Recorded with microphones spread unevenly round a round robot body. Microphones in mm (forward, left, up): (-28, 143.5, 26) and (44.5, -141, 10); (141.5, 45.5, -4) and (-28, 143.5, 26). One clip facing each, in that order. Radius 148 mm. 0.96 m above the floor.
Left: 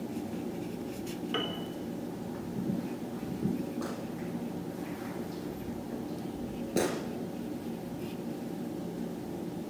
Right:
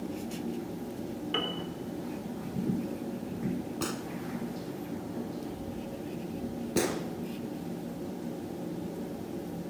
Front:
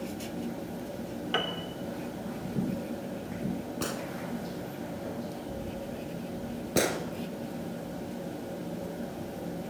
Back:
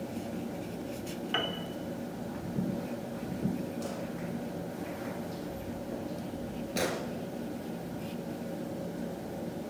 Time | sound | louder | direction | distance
1.3 | a piano | even, front 3 dB | 10° left | 3 m
3.8 | a gunshot | right 2 dB, front 2 dB | 45° right | 1.8 m
6.8 | a gunshot | even, front 5 dB | straight ahead | 3.5 m